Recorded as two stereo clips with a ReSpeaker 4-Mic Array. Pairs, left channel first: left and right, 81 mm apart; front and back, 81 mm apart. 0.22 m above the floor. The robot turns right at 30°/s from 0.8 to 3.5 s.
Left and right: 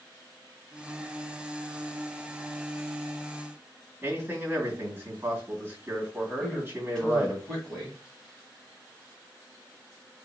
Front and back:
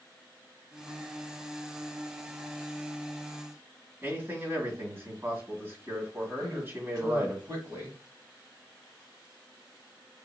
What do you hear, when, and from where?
4.0 s a man speaking: 140° right, 1.9 m
6.4 s a man speaking: 170° left, 1.7 m